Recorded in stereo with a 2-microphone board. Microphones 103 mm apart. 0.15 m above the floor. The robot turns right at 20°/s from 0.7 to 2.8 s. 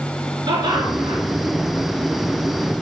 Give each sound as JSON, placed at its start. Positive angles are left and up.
{"t": 0.5, "sound": "laughter", "side_deg": -45, "distance_m": 2.0}